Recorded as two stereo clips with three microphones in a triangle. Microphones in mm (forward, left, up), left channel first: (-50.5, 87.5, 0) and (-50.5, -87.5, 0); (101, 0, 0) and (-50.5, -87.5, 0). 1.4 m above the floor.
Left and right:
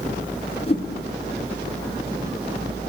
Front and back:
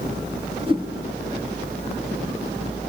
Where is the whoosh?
150° left, 4 m.